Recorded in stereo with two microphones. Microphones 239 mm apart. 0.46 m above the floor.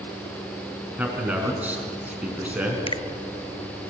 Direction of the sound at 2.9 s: 25° left (ahead or behind).